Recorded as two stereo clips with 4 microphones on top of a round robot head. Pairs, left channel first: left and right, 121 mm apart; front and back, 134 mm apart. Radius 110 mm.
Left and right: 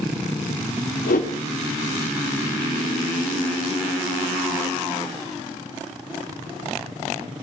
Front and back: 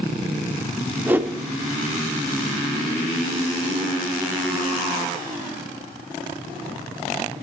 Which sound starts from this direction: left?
A whoosh, at 1.1 s.